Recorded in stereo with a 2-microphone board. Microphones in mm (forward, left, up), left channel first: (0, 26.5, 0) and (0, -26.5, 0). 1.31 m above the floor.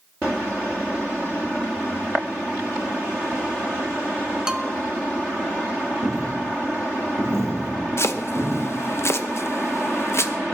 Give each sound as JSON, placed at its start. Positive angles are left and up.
{"t": 4.5, "sound": "a bell", "side_deg": -15, "distance_m": 0.9}
{"t": 6.0, "sound": "a dropped coin", "side_deg": -65, "distance_m": 9.0}
{"t": 8.0, "sound": "chopping", "side_deg": 55, "distance_m": 0.9}